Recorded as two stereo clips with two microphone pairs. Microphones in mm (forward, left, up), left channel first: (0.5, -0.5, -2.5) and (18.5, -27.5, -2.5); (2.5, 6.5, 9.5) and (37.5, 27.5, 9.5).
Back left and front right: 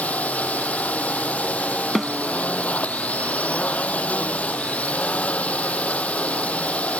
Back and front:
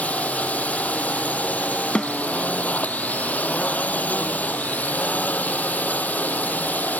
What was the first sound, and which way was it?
A drone, 160° left.